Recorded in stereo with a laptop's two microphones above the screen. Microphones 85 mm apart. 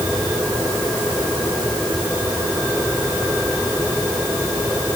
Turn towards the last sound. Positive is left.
No sound to turn to.